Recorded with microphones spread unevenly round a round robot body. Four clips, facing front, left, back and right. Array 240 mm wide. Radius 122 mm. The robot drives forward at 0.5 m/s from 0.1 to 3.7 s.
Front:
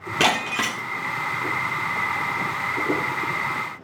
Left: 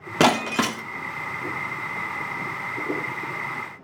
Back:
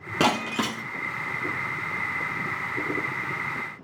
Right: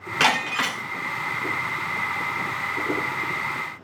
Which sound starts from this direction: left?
Breaking glass, at 0.2 s.